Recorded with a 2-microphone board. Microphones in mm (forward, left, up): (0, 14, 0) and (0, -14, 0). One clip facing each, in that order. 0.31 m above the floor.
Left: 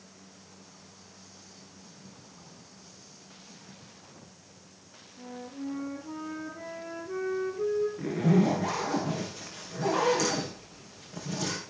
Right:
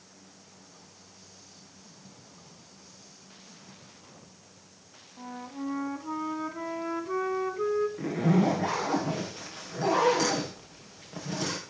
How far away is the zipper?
About 5 m.